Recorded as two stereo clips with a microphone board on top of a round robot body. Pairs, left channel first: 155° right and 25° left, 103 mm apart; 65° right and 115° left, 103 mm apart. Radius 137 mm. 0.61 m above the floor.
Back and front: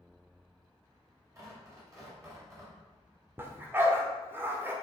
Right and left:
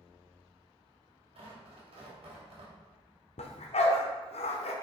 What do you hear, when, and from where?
1.4 s tearing paper: 80° left, 2.5 m
3.4 s a dog barking: 50° right, 0.9 m